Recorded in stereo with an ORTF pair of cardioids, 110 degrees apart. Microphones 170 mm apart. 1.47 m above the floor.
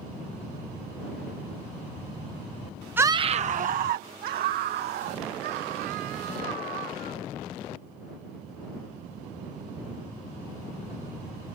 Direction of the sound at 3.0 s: 10° right.